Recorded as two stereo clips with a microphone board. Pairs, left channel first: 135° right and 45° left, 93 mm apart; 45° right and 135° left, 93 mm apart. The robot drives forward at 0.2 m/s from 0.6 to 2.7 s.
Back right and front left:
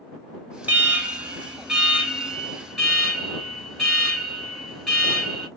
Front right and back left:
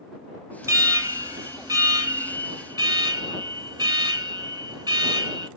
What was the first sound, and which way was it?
An alarm, 110° left.